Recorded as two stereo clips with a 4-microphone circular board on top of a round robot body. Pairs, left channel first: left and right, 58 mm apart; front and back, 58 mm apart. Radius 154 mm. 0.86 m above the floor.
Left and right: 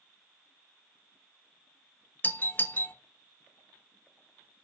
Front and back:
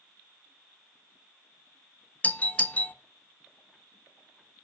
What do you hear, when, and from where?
2.2 s a doorbell: 50° left, 0.9 m